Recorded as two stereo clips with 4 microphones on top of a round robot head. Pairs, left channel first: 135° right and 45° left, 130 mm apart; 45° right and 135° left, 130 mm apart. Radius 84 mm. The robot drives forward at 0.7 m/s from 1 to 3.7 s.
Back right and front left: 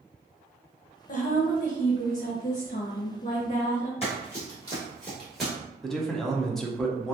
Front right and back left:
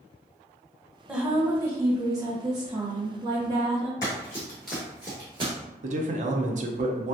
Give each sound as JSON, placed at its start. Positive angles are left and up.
{"t": 1.1, "sound": "a woman speaking", "azimuth_deg": -140, "distance_m": 0.9}
{"t": 4.0, "sound": "running footsteps", "azimuth_deg": -105, "distance_m": 1.3}
{"t": 5.8, "sound": "a man speaking", "azimuth_deg": 135, "distance_m": 0.7}